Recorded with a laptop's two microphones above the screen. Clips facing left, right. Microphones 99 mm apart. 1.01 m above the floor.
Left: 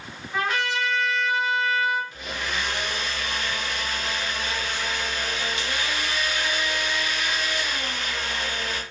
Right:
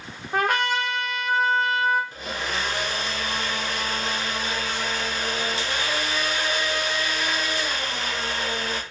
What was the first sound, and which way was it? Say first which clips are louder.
A trumpet: right 3 dB; 60° right (ahead or behind).